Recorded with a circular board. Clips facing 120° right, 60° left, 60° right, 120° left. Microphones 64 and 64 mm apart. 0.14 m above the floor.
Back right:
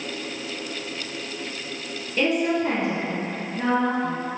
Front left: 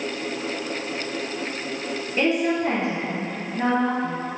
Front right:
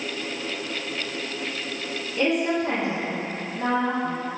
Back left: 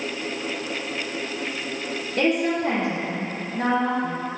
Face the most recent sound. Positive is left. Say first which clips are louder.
# even, back left 1 dB
turn(degrees=125)